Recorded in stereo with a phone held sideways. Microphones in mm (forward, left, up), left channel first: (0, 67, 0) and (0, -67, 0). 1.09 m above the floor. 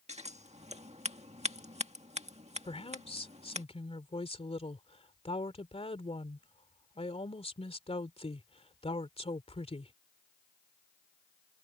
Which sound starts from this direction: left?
A woman speaking, at 2.6 s.